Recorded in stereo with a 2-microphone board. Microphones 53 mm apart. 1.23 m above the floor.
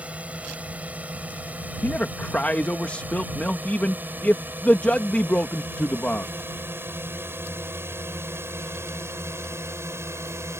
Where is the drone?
25° right (ahead or behind); by 10.6 s 60° right (ahead or behind).